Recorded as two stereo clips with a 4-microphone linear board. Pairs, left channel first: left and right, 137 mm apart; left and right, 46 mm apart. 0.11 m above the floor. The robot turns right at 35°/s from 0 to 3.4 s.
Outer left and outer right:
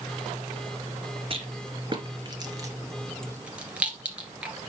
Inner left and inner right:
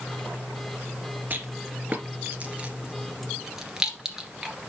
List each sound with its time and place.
1.3 s a rattle: 40° right (ahead or behind), 2 m; by 4.5 s 10° right (ahead or behind), 2 m